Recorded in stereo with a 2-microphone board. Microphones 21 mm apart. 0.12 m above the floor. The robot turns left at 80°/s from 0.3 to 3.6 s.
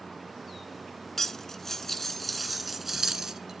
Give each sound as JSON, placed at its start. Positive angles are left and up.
{"t": 1.2, "sound": "cutlery clinking", "side_deg": 20, "distance_m": 0.6}